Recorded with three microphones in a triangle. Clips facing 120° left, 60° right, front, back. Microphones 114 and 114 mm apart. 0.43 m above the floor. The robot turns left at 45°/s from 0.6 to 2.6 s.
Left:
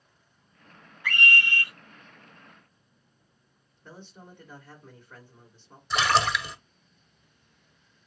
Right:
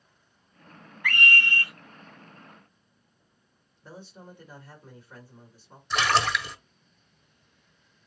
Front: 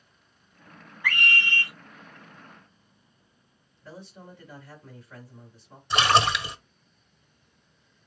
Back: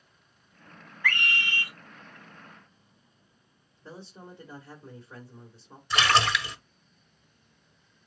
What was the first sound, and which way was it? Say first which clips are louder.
A scream: right 1 dB, front 2 dB; 75° right.